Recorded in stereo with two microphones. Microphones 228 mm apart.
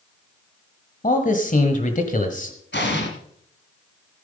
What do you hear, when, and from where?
1.0 s a man speaking: 40° left (ahead or behind), 1.3 m
2.7 s an explosion: 60° left (ahead or behind), 2 m